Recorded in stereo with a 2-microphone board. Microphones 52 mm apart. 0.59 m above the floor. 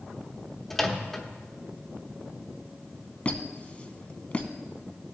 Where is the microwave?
5° left (ahead or behind), 0.9 m.